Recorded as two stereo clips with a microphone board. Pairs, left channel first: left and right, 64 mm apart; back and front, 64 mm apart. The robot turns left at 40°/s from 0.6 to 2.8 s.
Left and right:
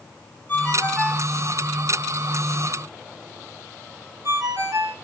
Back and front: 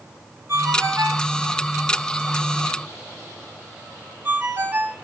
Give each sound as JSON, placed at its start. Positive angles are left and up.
{"t": 0.5, "sound": "a ringtone", "azimuth_deg": 35, "distance_m": 1.3}